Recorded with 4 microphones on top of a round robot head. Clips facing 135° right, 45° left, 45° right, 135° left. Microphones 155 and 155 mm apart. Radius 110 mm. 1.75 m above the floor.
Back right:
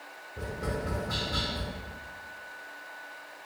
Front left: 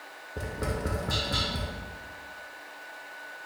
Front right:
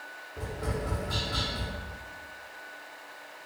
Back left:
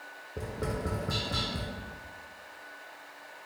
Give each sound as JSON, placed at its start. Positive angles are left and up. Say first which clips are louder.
{"t": 0.4, "sound": "tapping", "louder": "front left 1 dB, even", "azimuth_deg": 85, "distance_m": 0.7}